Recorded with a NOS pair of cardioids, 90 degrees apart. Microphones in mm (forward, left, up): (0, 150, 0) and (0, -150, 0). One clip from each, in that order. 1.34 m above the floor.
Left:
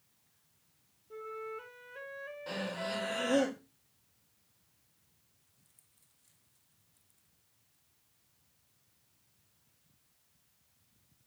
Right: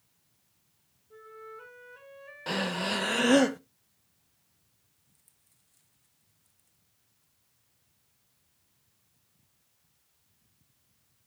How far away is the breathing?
About 0.9 m.